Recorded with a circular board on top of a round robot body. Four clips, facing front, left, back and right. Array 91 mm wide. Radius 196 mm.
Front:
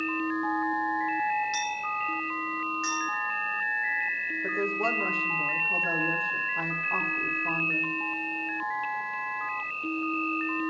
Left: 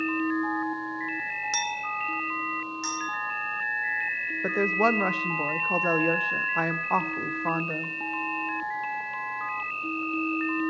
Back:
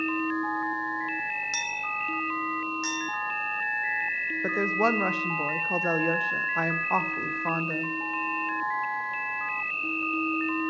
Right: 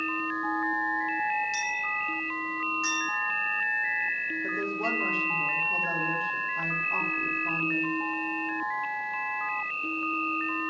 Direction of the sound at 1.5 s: 110° left.